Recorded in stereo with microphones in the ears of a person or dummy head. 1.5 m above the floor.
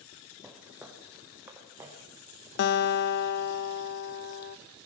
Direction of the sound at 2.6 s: 55° left (ahead or behind).